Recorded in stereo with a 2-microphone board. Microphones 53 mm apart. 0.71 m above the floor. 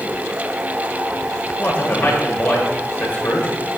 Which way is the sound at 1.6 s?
35° left (ahead or behind).